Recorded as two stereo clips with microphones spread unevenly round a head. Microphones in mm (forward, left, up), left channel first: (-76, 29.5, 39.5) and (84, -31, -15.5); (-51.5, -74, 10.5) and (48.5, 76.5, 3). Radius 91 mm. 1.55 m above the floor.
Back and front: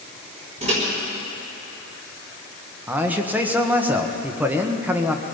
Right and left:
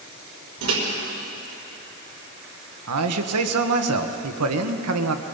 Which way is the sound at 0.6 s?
40° left.